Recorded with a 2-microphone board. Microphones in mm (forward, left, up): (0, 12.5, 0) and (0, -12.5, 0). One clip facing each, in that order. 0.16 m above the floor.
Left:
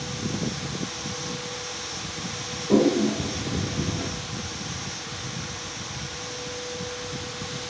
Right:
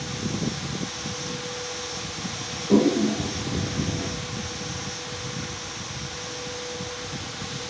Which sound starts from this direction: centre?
A toilet flushing, at 2.7 s.